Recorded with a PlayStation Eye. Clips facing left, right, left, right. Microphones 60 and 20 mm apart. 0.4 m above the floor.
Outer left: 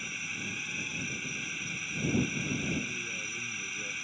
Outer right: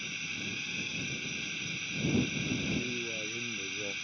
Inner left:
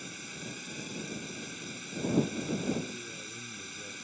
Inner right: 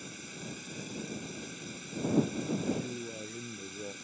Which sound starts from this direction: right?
A man speaking, at 2.7 s.